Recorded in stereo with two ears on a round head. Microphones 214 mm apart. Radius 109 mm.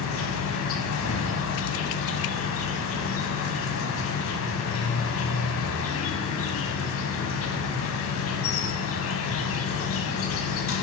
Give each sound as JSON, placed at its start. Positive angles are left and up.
{"t": 0.0, "sound": "an insect", "side_deg": 65, "distance_m": 6.0}